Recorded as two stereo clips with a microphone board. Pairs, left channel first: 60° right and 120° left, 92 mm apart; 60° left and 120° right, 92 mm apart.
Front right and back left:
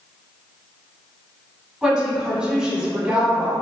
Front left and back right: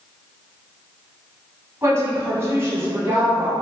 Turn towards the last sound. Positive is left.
turn(degrees=-165)